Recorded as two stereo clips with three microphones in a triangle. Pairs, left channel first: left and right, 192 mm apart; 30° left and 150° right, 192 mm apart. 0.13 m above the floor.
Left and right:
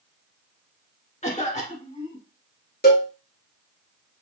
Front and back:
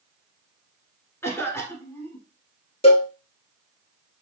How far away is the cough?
About 1.3 m.